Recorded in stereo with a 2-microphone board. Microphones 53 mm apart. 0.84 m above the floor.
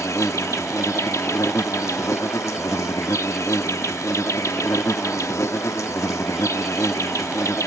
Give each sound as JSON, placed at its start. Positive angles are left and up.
{"t": 0.0, "sound": "an insect", "side_deg": 70}